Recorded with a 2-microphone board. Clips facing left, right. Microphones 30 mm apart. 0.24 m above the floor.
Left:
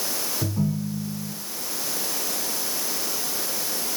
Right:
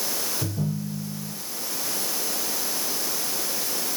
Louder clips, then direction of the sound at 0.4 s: Left 6 dB; 60° left (ahead or behind).